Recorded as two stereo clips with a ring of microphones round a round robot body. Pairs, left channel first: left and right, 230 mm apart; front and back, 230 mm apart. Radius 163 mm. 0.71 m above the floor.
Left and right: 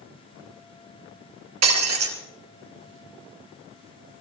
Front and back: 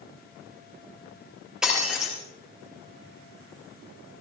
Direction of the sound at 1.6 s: 90° right.